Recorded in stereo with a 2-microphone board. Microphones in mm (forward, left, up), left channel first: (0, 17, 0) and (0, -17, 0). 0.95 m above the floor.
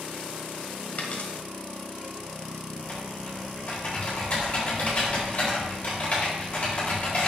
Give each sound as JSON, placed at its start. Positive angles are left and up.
{"t": 1.0, "sound": "a dropped coin", "side_deg": 45, "distance_m": 1.5}
{"t": 2.8, "sound": "typing on a keyboard", "side_deg": 40, "distance_m": 4.0}